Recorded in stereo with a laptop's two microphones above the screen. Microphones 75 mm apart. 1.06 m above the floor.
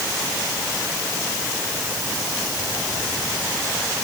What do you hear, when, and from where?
Only background noise.